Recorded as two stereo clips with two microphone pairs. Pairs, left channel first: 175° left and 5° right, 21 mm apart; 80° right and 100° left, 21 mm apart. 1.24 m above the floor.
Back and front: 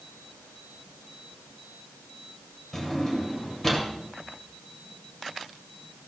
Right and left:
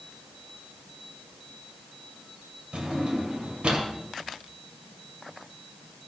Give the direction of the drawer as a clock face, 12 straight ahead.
8 o'clock.